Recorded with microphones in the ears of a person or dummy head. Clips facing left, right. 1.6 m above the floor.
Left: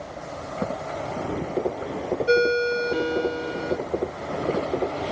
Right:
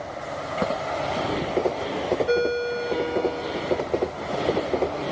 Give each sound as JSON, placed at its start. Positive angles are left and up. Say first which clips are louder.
{"t": 2.3, "sound": "a ringtone", "louder": "left 2 dB", "side_deg": 20}